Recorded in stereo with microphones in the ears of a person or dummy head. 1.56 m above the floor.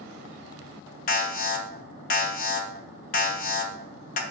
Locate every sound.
1.1 s an alarm: 45° left (ahead or behind), 1.3 m